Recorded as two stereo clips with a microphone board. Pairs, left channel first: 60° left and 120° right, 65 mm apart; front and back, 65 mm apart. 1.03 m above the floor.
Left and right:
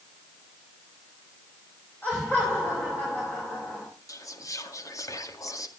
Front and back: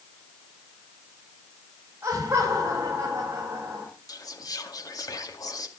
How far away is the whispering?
About 2 m.